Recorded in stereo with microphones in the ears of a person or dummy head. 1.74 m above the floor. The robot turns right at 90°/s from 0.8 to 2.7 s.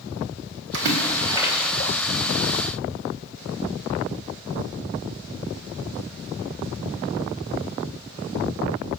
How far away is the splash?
About 2.5 m.